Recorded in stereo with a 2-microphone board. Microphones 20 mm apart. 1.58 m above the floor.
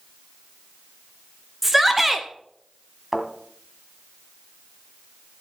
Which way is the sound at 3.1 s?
5° right (ahead or behind).